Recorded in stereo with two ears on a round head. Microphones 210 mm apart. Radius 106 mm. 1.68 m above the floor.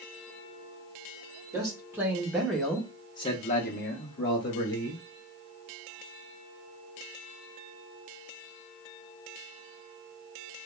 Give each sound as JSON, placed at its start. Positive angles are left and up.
{"t": 1.5, "sound": "a man speaking", "side_deg": -15, "distance_m": 1.2}